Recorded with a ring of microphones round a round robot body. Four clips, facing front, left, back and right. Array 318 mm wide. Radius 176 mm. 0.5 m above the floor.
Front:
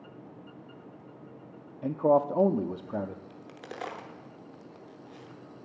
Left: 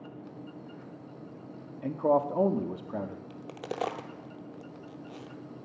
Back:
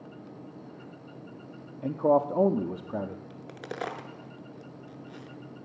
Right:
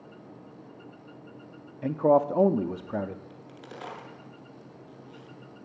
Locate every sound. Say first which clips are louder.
1.8 s a man speaking: right 4 dB, even; 85° right, 0.6 m
3.3 s a crack: left 6 dB, back 4 dB; 115° left, 0.9 m